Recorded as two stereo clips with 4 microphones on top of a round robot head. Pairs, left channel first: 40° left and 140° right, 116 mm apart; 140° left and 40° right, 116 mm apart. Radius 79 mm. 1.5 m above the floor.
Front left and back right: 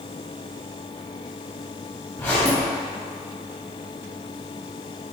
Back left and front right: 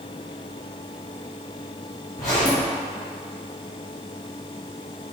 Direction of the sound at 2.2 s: 100° left.